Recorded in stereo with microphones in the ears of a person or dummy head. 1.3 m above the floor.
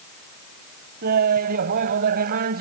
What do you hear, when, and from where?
1.0 s laughter: 50° right (ahead or behind)